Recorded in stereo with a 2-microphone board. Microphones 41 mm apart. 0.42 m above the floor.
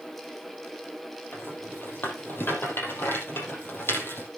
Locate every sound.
1.3 s a rattle: 70° left (ahead or behind), 5.5 m